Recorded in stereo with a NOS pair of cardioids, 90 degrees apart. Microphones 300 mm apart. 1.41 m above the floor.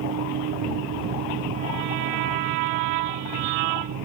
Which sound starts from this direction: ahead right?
A fan, at 0.0 s.